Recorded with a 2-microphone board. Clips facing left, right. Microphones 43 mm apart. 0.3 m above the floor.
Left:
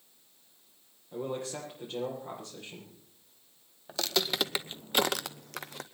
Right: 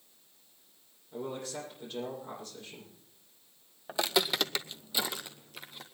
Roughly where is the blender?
No blender in this recording.